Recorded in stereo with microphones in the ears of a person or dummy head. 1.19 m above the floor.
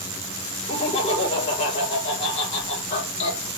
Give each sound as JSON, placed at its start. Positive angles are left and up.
{"t": 0.7, "sound": "laughter", "side_deg": 30, "distance_m": 3.0}